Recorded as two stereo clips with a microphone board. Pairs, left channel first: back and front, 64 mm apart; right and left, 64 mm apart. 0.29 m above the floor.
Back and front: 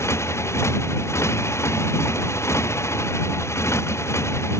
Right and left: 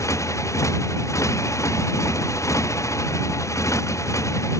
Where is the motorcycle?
130° right.